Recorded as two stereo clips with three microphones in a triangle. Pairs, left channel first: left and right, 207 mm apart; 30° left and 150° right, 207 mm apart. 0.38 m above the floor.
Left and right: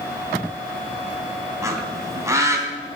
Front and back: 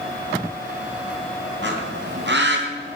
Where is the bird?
165° right, 3 m.